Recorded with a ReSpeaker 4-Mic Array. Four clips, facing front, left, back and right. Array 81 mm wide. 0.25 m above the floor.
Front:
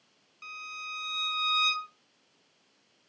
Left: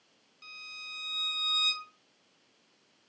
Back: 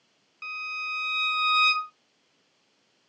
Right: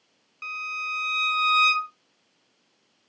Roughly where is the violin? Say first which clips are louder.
Right 17 dB, back 6 dB; behind right.